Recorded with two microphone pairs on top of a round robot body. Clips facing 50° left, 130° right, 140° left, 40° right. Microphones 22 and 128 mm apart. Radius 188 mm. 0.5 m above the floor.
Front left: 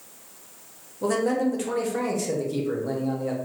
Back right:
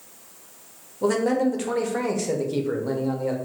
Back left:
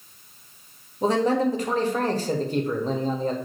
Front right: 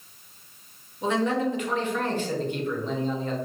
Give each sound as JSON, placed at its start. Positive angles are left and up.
{"t": 1.0, "sound": "a man speaking", "azimuth_deg": 165, "distance_m": 1.0}